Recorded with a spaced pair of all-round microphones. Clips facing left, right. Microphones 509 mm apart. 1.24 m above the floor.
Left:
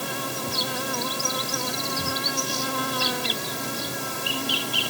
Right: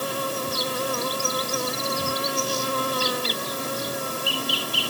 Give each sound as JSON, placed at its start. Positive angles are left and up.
{"t": 0.0, "sound": "an insect", "side_deg": 10}